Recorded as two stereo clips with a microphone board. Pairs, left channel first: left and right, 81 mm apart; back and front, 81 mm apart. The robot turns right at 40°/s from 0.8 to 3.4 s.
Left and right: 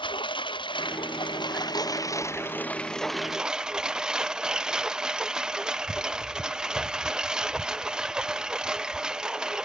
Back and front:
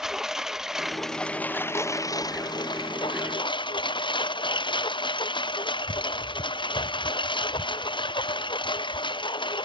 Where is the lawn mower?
85° left; by 9.7 s 170° right.